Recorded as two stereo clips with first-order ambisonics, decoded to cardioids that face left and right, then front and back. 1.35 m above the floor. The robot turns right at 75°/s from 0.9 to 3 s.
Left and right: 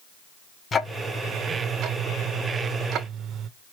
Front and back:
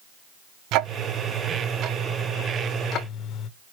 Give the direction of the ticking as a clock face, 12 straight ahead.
7 o'clock.